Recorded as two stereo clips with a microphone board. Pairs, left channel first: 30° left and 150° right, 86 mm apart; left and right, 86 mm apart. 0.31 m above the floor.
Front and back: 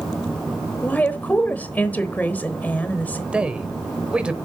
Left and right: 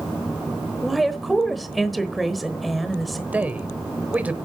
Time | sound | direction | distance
0.8 | a woman speaking | straight ahead | 1.0 m
3.3 | a man speaking | 100° right | 0.9 m